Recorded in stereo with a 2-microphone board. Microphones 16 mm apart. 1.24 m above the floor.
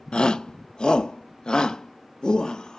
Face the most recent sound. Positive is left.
turn(degrees=55)  # may be behind; listen again after turning